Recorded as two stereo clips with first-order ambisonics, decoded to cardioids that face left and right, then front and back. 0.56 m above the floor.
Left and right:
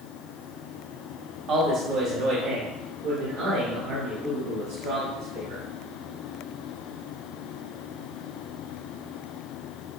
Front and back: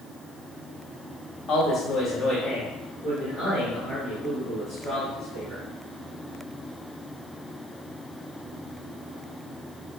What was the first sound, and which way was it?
A man speaking, 50° right.